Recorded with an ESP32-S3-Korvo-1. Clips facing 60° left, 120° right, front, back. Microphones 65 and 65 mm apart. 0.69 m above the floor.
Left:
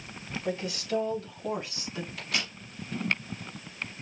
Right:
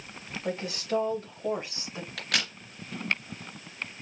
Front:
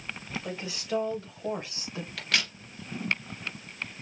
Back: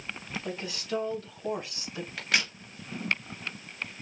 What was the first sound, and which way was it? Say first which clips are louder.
A woman speaking: right 1 dB, even; 75° right.